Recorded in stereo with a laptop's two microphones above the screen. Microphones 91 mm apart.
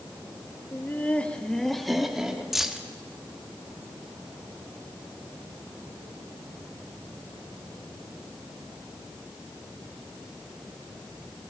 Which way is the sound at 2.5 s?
5° right (ahead or behind).